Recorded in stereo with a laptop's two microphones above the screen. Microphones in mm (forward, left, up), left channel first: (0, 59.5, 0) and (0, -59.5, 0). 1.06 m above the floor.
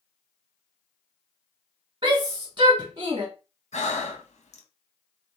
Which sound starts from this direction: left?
Breathing, at 3.7 s.